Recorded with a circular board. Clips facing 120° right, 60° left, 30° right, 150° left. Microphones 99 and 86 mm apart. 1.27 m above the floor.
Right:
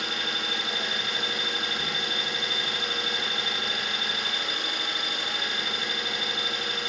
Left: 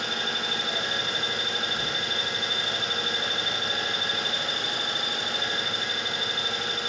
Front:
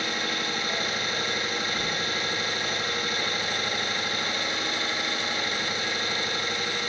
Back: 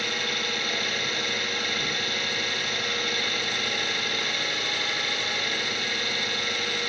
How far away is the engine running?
About 1.5 m.